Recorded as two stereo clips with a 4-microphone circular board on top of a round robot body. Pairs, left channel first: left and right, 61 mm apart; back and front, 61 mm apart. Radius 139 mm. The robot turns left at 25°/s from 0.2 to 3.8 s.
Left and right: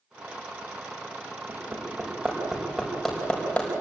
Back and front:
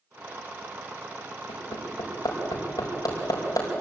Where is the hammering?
145° right, 5.5 m; by 3.8 s 160° left, 5.5 m.